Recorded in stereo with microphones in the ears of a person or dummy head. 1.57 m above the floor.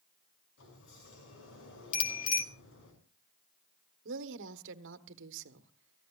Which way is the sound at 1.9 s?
45° left (ahead or behind).